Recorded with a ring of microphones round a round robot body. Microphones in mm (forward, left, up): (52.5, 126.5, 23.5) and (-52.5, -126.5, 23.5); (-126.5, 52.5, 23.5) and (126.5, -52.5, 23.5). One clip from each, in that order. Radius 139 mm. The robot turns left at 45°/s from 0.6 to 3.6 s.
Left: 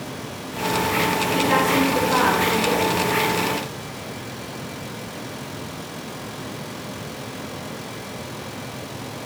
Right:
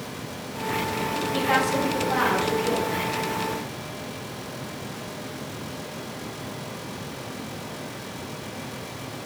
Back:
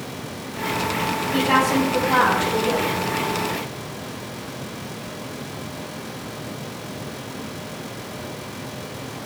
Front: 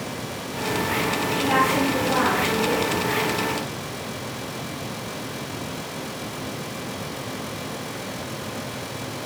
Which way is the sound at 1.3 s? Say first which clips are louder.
Left 2 dB, back 2 dB; 170° right.